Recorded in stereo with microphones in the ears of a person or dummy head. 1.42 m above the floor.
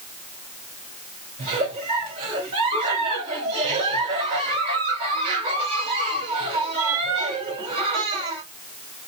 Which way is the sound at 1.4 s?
30° right (ahead or behind).